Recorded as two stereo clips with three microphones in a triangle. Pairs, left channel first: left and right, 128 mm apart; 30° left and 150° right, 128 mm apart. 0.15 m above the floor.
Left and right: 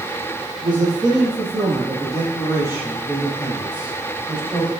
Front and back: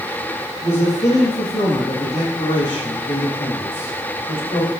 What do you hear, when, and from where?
0.6 s a man speaking: 40° right, 4.5 m; by 4.7 s 5° right, 5 m